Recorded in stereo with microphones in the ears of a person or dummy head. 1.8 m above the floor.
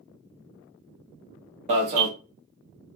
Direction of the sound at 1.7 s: 40° right (ahead or behind).